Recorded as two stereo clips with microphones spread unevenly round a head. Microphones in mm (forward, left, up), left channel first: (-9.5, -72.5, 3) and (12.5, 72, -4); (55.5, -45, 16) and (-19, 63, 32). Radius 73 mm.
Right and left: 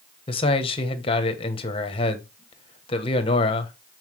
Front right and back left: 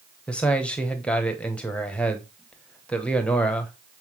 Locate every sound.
0.3 s a man speaking: 140° right, 1.0 m